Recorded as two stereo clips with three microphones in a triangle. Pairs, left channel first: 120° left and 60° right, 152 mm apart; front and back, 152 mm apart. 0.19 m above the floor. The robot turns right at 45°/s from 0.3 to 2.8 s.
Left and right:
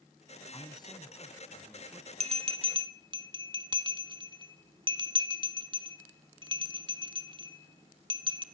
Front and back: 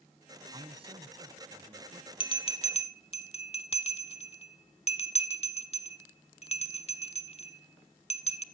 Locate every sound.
0.5 s a man speaking: 150° left, 1.6 m; by 2.1 s 140° right, 1.6 m
2.2 s a bell: 40° right, 0.9 m; by 8.4 s 15° right, 0.9 m